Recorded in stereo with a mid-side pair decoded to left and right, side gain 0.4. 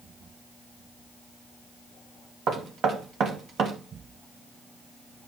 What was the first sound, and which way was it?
Knocking, 70° right.